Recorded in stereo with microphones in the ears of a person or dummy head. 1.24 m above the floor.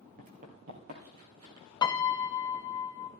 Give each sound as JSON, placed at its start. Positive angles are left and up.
{"t": 0.2, "sound": "running footsteps", "side_deg": -35, "distance_m": 1.7}
{"t": 1.8, "sound": "a piano", "side_deg": 20, "distance_m": 0.8}